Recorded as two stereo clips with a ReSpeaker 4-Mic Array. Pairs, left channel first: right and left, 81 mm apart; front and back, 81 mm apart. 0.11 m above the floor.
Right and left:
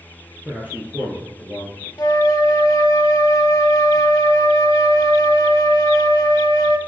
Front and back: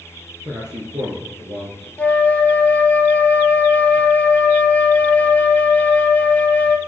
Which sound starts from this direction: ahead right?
A flute, at 2.0 s.